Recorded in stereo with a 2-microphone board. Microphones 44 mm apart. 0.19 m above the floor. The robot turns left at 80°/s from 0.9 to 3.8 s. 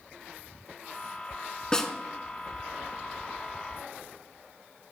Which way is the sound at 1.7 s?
20° left (ahead or behind).